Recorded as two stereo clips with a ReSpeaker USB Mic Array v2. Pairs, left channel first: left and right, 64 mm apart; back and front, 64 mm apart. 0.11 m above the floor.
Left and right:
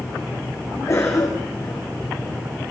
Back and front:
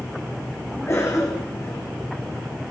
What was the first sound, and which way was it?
A cough, 135° left.